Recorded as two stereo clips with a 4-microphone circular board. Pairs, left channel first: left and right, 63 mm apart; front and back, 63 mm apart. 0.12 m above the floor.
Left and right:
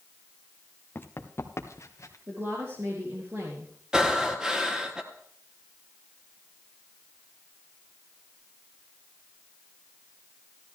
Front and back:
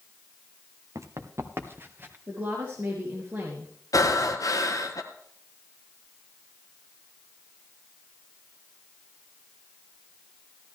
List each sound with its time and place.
0.9 s running footsteps: 145° left, 1.5 m; by 2.2 s 125° left, 2 m
2.3 s a woman speaking: 130° right, 3.5 m
3.9 s breathing: 15° right, 1.3 m